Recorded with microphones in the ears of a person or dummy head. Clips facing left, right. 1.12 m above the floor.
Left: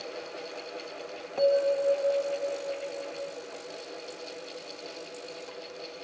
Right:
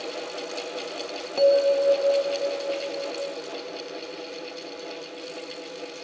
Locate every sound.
1.4 s a bell: 50° right (ahead or behind), 0.6 m